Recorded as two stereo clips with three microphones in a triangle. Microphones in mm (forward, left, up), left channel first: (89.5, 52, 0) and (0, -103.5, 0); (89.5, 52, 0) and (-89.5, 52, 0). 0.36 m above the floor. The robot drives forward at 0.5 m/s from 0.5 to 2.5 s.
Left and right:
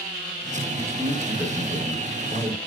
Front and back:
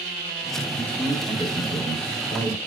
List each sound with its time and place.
0.7 s a man speaking: 60° right, 1.1 m; by 2.6 s 150° right, 1.3 m